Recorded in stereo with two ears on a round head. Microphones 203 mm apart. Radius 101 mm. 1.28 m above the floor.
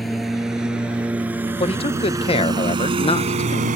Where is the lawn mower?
Centre (ahead or behind); by 3.8 s 35° right (ahead or behind).